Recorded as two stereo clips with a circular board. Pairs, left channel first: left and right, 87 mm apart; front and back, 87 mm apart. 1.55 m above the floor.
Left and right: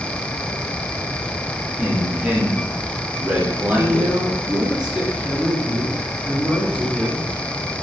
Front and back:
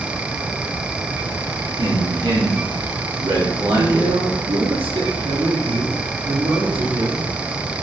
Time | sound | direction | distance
1.8 | a man speaking | 165° right | 4 m
3.8 | a woman speaking | 170° right | 4 m